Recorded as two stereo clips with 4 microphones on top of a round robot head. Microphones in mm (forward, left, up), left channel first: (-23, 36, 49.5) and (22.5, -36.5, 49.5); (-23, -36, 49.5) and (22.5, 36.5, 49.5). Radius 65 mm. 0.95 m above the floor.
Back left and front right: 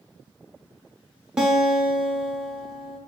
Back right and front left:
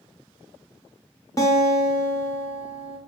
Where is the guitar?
130° right, 0.5 m.